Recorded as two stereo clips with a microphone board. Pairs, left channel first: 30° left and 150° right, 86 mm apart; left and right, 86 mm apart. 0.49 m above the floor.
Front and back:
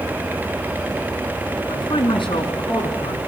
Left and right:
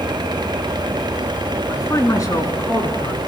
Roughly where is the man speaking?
Ahead left.